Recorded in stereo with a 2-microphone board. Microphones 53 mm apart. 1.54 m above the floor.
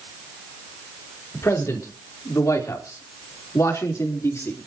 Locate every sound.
1.3 s a man speaking: 65° left (ahead or behind), 4 m; by 4.6 s 50° left (ahead or behind), 4.5 m